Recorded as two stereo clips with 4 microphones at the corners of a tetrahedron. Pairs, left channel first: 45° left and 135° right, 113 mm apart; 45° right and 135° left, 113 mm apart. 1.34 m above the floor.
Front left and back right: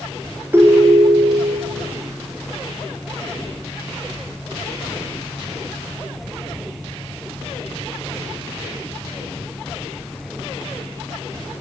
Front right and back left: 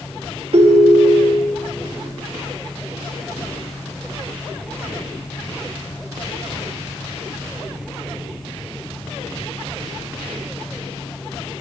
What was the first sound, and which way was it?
A ringtone, 155° left.